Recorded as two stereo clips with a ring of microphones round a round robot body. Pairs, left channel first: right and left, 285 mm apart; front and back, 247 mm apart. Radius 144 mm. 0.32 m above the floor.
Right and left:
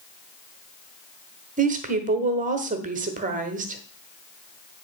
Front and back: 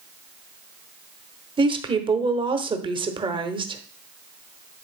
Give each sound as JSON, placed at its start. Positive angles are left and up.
{"t": 1.6, "sound": "a woman speaking", "azimuth_deg": 125, "distance_m": 1.2}